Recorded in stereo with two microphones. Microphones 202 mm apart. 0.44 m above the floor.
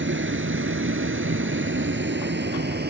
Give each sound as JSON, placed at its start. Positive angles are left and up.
{"t": 0.0, "sound": "a vehicle", "side_deg": -75}